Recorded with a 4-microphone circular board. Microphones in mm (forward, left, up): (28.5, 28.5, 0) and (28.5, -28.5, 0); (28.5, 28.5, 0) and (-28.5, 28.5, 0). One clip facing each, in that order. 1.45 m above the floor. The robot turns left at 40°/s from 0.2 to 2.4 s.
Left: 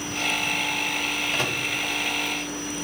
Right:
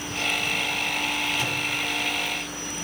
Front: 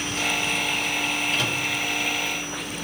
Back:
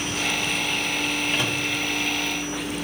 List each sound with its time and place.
1.3 s a microwave: 120° left, 1.7 m; by 1.6 s 110° left, 1.7 m